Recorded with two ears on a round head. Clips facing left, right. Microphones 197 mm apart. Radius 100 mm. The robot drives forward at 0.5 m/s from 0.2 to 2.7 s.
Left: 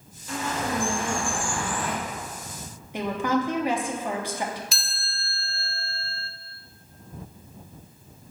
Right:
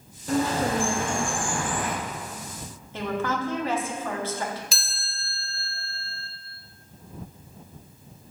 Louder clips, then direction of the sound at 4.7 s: Even; 70° right (ahead or behind).